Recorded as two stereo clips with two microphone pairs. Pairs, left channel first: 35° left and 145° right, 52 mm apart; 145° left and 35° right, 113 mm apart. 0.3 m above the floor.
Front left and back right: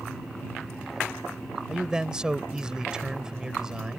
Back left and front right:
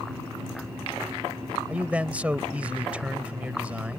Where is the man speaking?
95° right.